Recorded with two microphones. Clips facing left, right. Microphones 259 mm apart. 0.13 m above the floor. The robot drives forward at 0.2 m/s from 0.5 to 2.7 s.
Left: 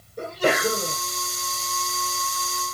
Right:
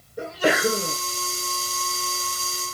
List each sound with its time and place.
0.2 s a sneeze: 10° right (ahead or behind), 1.3 m